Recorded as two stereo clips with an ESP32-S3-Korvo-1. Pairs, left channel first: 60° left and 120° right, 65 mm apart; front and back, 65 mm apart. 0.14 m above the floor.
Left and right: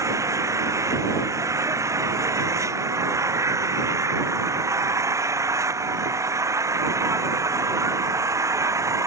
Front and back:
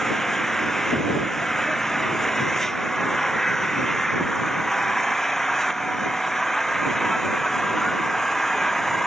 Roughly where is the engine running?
Right.